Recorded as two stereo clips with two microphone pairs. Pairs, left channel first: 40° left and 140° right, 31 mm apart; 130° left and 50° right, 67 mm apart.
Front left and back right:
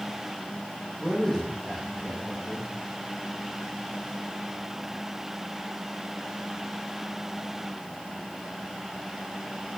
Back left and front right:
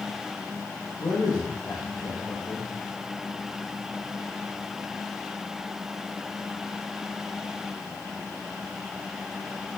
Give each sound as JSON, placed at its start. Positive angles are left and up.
{"t": 1.0, "sound": "a man speaking", "azimuth_deg": 130, "distance_m": 8.5}